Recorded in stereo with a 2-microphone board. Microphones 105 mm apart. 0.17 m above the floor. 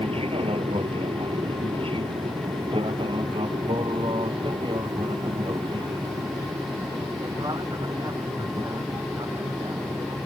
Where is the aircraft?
65° right (ahead or behind); by 10.3 s 40° right (ahead or behind).